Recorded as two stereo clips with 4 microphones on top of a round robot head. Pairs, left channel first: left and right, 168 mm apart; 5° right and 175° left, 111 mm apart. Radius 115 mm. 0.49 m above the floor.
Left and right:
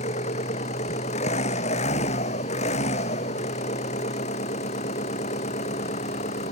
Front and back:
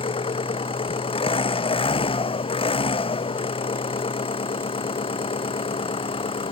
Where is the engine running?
30° left.